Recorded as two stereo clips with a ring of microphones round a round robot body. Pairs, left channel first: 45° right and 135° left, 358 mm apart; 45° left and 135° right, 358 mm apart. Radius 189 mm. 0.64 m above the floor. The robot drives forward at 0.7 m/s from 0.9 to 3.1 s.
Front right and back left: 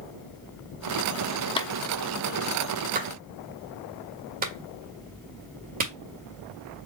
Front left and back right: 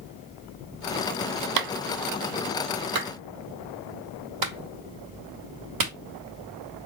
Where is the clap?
120° right, 0.6 m; by 5.9 s 160° right, 1.5 m.